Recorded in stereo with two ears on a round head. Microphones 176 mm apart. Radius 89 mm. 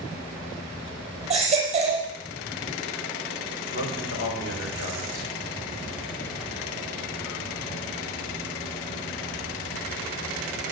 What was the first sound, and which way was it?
A baby crying, 35° right (ahead or behind).